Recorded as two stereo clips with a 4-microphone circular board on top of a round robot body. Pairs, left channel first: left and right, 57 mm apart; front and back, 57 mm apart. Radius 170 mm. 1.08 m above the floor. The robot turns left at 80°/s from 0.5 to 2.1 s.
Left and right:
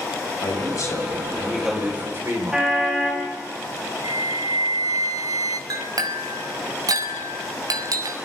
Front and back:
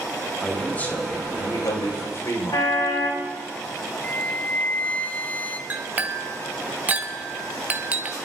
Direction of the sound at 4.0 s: 65° right.